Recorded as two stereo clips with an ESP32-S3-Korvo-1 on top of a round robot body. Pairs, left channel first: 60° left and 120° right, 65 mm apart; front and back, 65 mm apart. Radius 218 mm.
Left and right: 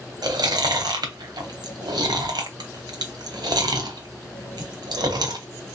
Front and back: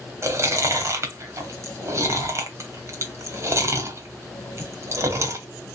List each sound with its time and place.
0.2 s chewing: 130° right, 0.8 m